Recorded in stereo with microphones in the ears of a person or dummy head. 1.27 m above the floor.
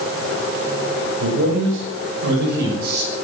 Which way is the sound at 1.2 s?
80° right.